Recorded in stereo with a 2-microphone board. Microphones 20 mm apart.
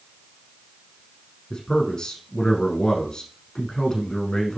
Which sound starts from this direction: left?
A man speaking, at 1.5 s.